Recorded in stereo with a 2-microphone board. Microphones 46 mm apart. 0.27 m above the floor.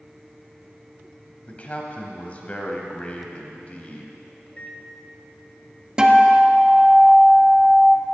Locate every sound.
1.5 s a man speaking: 30° left (ahead or behind), 1.3 m
4.5 s a microwave: 20° left (ahead or behind), 0.7 m
6.0 s a guitar: 15° right (ahead or behind), 0.8 m